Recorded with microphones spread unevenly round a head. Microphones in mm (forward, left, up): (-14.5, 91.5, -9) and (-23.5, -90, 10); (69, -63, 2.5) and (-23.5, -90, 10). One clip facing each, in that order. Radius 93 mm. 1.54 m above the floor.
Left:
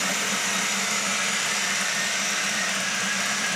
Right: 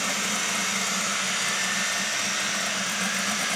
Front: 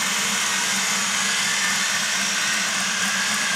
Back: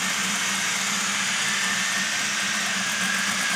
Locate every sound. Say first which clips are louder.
0.0 s a machine running: left 1 dB, front 2 dB; 25° left, 6 m